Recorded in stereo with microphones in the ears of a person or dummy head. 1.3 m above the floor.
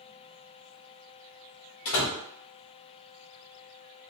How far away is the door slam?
About 1.3 m.